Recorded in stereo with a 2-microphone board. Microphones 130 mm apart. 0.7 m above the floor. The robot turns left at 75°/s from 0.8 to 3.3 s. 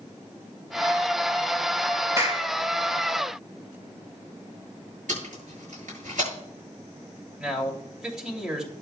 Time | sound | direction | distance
2.2 | a clap | 25° right (ahead or behind) | 3 m
5.1 | tape being pulled | 85° right | 8 m
7.4 | a man speaking | 5° right (ahead or behind) | 2.5 m